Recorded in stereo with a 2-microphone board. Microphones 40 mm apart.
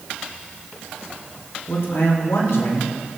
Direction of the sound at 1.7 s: 80° left.